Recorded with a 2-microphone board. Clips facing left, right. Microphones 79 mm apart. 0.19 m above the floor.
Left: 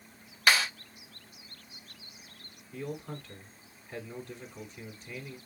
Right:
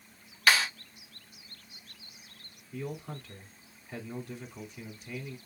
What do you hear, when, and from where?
0.5 s a clap: 10° left (ahead or behind), 4 m
2.7 s a man speaking: 5° right (ahead or behind), 1.5 m